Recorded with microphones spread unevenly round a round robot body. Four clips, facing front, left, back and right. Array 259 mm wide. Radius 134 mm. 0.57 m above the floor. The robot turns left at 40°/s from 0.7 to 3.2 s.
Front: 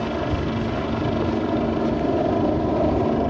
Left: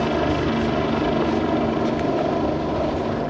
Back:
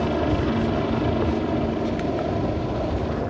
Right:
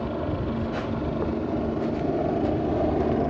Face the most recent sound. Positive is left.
turn(degrees=-15)